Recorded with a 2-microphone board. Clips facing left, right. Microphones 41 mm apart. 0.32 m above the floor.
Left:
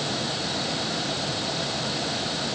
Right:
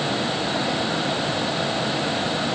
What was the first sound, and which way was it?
Only background noise.